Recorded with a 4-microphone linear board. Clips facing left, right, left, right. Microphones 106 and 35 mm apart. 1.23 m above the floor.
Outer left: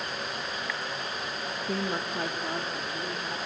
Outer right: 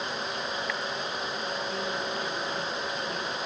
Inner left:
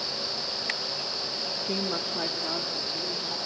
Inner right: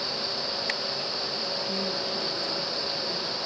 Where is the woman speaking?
55° left (ahead or behind), 1.3 m.